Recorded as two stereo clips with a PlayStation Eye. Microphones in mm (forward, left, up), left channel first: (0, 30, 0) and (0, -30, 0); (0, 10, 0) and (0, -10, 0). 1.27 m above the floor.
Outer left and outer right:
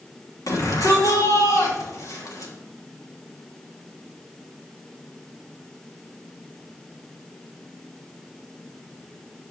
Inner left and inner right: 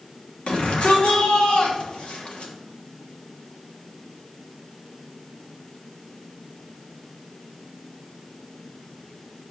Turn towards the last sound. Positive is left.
turn(degrees=80)